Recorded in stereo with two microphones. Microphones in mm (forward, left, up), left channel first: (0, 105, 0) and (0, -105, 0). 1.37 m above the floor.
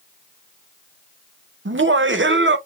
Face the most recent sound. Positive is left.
turn(degrees=-65)  # may be behind; listen again after turning